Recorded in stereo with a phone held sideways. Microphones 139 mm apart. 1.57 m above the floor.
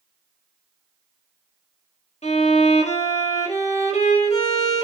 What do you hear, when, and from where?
2.2 s a violin: 50° left (ahead or behind), 1.2 m